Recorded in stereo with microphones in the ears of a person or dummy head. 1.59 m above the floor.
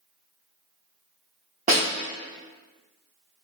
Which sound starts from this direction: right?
A snare drum, at 1.7 s.